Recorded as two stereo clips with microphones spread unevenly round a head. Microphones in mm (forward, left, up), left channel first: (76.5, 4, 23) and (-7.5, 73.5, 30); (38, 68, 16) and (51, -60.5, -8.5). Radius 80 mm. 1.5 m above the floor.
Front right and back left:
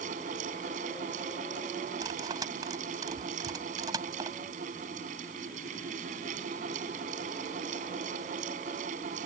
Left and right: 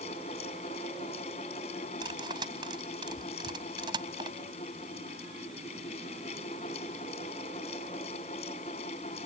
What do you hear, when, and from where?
0.0 s a fan: 150° left
2.0 s cutlery clinking: 150° right